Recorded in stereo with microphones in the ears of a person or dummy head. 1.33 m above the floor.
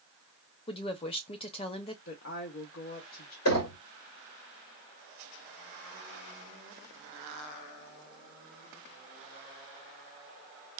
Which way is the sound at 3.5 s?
80° left.